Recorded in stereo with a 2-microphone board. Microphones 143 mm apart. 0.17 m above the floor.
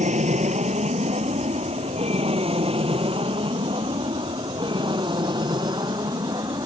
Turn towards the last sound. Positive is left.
turn(degrees=-30)  # may be behind; listen again after turning